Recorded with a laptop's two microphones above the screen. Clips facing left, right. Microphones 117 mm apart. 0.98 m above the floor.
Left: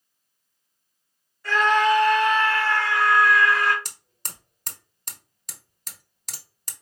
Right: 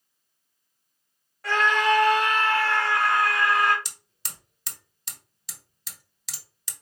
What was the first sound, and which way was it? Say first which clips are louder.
A scream: left 3 dB; 80° right.